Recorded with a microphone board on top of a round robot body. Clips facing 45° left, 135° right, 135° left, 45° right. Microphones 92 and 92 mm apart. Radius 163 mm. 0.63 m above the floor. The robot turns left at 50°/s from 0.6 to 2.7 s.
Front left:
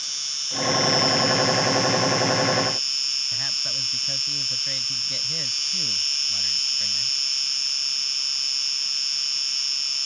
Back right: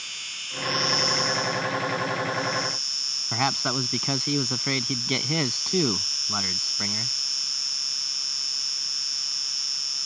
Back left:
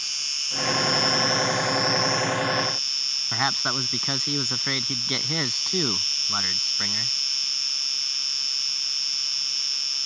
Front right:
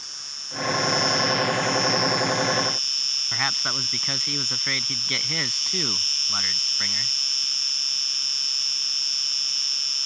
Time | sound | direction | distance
0.0 | an insect | 115° left | ?
3.3 | a man speaking | 155° right | ?